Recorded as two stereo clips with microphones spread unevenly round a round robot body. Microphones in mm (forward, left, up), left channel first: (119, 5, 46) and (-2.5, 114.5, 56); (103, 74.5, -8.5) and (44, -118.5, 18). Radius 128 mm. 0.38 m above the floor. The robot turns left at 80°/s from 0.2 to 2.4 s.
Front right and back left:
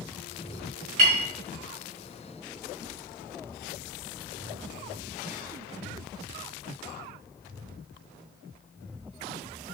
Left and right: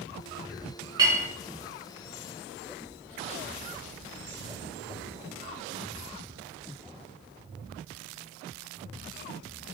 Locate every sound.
1.0 s a clink: straight behind, 0.6 m; by 1.3 s 160° left, 0.6 m